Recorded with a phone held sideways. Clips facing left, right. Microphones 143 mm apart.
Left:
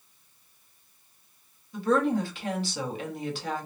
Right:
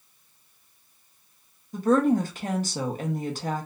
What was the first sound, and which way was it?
A woman speaking, 45° right (ahead or behind).